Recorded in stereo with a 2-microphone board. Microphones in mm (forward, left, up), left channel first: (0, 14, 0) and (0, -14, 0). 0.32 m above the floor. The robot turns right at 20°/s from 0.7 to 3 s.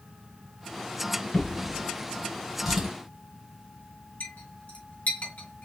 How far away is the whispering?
No whispering in this recording.